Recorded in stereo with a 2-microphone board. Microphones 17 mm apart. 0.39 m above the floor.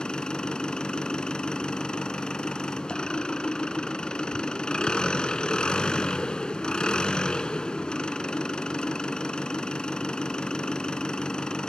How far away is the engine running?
About 0.9 m.